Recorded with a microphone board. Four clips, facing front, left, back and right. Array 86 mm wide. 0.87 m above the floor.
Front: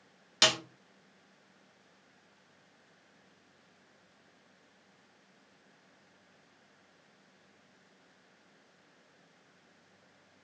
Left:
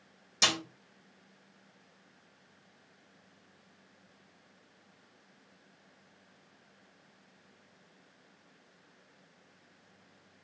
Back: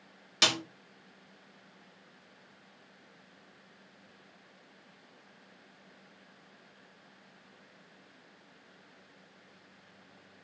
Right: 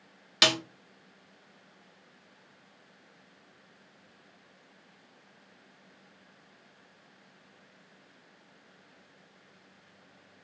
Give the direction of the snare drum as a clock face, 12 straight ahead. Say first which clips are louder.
Right 5 dB, front 1 dB; 3 o'clock.